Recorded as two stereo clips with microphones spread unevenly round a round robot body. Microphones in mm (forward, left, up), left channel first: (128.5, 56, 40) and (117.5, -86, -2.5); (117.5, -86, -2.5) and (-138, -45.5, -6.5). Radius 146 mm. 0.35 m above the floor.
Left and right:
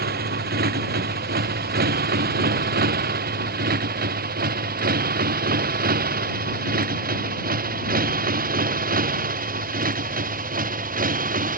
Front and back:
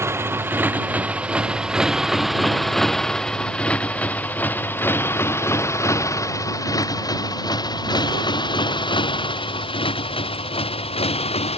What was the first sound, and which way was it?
A motorcycle, 110° right.